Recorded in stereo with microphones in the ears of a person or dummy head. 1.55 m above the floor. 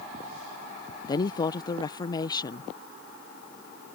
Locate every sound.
1.1 s a woman speaking: 25° left (ahead or behind)